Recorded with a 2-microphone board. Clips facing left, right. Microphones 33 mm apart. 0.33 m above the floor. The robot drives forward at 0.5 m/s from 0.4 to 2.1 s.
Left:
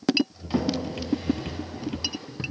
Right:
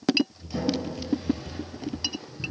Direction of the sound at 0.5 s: 55° left (ahead or behind).